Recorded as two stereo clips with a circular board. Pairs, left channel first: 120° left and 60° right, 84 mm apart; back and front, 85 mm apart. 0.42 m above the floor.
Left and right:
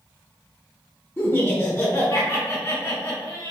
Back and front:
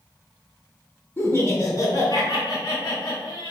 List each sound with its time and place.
1.2 s laughter: 150° left, 0.8 m; by 3.5 s 170° left, 1.8 m